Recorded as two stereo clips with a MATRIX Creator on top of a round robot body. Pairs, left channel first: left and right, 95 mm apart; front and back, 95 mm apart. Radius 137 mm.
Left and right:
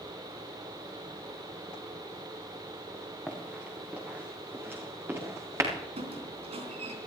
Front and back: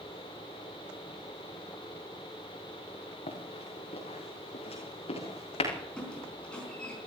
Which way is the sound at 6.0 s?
80° right.